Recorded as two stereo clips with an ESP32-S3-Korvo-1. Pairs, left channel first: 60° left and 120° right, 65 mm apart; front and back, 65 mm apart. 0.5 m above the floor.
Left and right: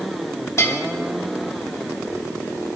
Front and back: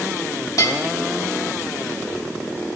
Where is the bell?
20° left, 1.4 m.